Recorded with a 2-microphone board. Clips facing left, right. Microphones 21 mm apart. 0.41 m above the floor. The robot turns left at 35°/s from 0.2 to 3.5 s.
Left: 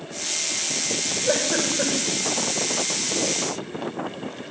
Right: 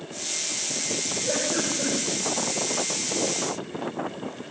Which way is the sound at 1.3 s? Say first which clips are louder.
Left 4 dB; 50° left (ahead or behind).